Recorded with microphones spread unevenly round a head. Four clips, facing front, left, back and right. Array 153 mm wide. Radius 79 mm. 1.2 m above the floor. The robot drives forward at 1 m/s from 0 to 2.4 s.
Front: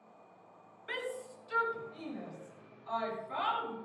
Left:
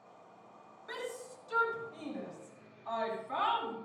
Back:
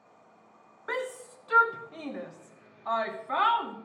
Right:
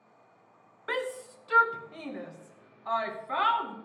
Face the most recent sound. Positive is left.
turn(degrees=-160)